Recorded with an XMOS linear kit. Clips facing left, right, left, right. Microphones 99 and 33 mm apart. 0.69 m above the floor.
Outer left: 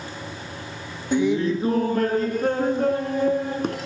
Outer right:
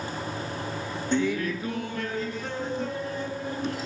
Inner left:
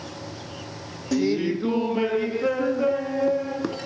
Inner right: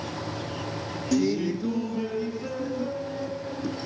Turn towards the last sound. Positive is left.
turn(degrees=60)  # may be behind; listen again after turning